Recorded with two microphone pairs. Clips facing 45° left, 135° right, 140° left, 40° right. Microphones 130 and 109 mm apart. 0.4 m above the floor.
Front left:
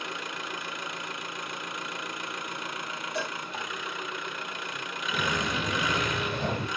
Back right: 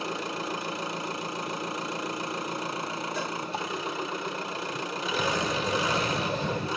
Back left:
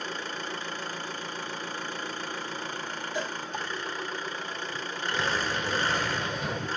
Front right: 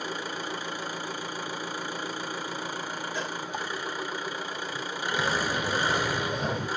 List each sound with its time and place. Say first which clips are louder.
0.0 s an engine running: back right 5 dB, front right 2 dB; 115° right, 0.8 m
3.1 s a cowbell: front left 2 dB, back left 3 dB; 70° left, 5 m
5.1 s footsteps: back right 2 dB, front right 2 dB; 40° left, 2.5 m; by 6.7 s 15° left, 3.5 m